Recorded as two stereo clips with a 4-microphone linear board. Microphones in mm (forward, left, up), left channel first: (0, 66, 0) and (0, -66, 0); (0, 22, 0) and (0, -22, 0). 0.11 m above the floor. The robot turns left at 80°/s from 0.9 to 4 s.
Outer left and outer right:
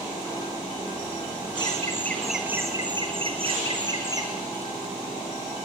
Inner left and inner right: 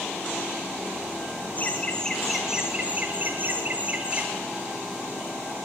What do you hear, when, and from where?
1.6 s laughter: 55° left, 2.0 m; by 4.3 s 140° right, 2.0 m